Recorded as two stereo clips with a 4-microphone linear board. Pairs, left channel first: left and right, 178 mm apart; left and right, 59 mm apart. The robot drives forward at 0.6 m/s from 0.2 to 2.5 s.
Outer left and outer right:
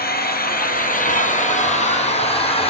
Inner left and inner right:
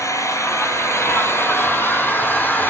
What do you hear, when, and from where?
0.0 s an engine running: 60° left (ahead or behind), 1.4 m; by 2.7 s 35° left (ahead or behind), 2 m